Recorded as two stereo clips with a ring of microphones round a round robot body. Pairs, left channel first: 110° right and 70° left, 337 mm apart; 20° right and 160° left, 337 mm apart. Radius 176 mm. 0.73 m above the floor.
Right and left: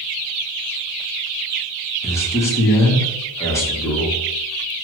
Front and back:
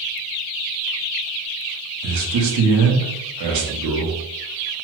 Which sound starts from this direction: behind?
A man speaking, at 2.0 s.